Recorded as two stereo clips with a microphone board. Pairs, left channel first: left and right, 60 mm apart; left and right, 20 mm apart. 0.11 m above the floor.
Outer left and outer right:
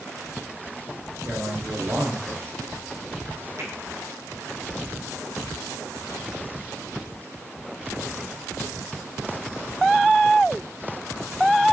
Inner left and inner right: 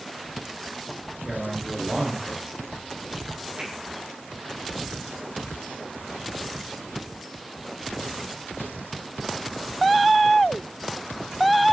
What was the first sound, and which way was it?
A man speaking, 40° right (ahead or behind).